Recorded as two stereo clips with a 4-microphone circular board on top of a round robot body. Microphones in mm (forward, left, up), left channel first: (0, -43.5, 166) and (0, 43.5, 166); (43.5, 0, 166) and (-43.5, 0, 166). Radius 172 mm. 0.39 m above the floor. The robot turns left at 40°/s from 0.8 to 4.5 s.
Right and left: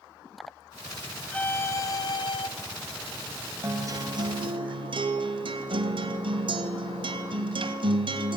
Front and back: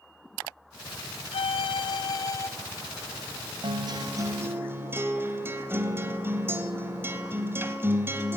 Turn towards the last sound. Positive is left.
turn(degrees=115)